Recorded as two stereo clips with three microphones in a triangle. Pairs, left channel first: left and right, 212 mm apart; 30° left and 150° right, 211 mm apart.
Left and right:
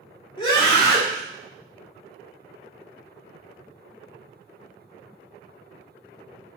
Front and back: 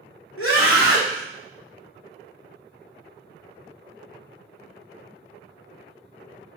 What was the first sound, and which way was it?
A scream, 25° left.